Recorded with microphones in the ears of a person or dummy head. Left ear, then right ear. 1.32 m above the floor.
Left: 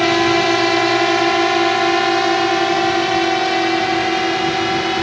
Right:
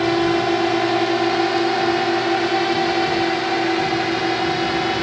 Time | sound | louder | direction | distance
0.0 | a drone | left 4 dB | 55° left (ahead or behind) | ?